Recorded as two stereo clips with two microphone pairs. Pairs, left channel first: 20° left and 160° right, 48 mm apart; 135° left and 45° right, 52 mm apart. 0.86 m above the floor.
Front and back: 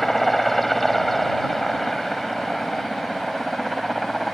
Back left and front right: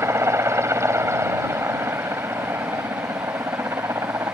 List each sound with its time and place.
0.0 s a helicopter: 65° right